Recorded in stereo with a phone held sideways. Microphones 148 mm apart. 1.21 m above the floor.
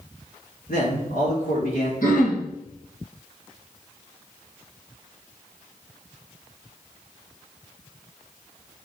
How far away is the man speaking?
About 3.5 m.